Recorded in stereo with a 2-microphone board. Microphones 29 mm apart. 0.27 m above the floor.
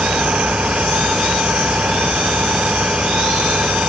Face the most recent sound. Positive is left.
turn(degrees=-45)  # may be behind; listen again after turning